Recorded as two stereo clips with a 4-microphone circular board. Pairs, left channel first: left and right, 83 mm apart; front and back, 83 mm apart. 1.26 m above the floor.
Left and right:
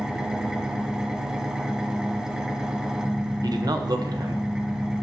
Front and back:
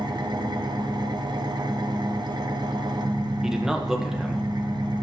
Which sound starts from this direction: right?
A man speaking, at 3.4 s.